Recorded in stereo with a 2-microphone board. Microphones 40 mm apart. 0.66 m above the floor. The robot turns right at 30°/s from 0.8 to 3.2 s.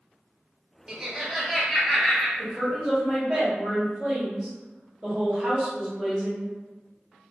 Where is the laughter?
25° right, 0.8 m; by 2.3 s 15° left, 0.8 m.